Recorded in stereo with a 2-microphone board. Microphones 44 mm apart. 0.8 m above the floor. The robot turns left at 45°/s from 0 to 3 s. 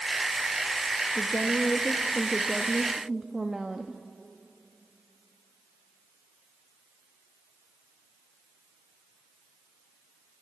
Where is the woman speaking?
70° left, 0.7 m; by 4.0 s 15° right, 0.7 m.